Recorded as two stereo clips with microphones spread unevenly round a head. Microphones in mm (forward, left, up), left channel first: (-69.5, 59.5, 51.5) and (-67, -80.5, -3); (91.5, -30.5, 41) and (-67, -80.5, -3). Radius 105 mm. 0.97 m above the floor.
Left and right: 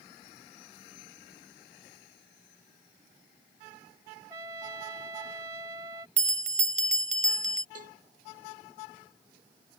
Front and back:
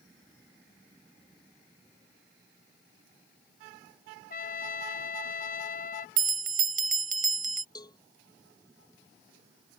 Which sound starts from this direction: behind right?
A bell, at 6.2 s.